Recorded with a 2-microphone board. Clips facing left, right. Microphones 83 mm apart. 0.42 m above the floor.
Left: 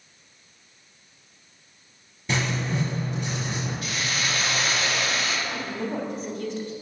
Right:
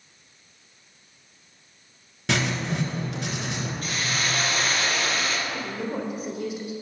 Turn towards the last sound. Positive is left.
turn(degrees=-10)  # may be behind; listen again after turning